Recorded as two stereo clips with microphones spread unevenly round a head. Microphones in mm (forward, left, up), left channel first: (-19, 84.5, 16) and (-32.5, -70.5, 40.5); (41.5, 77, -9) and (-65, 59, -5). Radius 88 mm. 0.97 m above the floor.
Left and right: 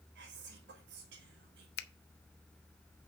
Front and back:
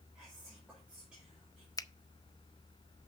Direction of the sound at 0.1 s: 85° right.